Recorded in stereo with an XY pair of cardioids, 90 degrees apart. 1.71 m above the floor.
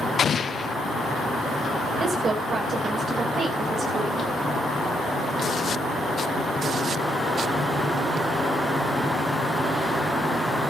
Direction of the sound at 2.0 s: 55° right.